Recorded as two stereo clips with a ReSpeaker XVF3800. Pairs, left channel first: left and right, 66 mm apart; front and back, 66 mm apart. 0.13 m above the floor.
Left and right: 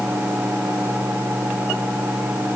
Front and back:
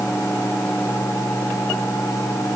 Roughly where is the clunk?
No clunk in this recording.